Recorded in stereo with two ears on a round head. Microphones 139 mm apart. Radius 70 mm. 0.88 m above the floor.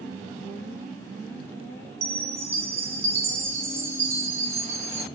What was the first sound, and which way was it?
A chime, 20° right (ahead or behind).